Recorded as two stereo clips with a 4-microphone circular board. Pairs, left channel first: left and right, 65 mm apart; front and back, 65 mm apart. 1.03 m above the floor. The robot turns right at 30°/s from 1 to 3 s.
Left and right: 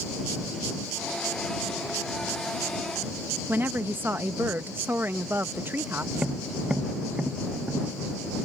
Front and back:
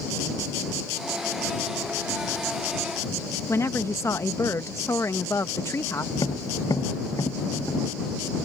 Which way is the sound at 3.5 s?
35° right.